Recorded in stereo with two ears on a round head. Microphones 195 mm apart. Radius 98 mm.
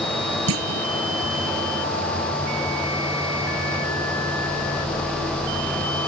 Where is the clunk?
70° right (ahead or behind).